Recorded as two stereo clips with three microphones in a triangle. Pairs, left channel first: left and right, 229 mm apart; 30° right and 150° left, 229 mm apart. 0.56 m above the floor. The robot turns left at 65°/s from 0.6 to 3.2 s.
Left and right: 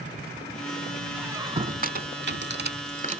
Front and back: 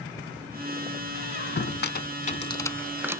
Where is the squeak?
5° right, 0.6 m; by 3.2 s 140° right, 0.6 m.